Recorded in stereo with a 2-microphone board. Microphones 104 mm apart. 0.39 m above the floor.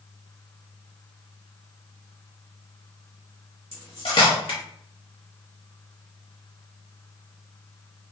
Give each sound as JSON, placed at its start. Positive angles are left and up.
{"t": 3.7, "sound": "cutlery clinking", "side_deg": 60, "distance_m": 1.1}